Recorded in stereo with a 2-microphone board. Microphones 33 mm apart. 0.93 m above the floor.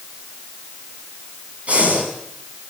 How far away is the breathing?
About 6.5 m.